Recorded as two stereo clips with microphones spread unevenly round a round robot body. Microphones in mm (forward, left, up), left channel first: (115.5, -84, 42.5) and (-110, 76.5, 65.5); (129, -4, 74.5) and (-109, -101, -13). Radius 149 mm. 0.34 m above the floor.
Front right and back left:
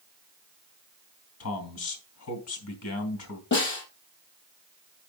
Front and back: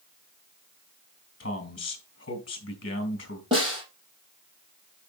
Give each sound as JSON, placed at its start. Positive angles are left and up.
{"t": 1.4, "sound": "a man speaking", "azimuth_deg": -25, "distance_m": 3.0}
{"t": 3.5, "sound": "a snare drum", "azimuth_deg": -85, "distance_m": 4.5}